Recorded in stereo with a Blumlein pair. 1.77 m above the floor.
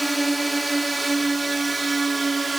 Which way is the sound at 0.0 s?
5° right.